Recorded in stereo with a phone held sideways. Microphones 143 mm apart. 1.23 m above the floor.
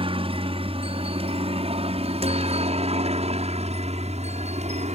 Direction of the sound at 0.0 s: 40° right (ahead or behind).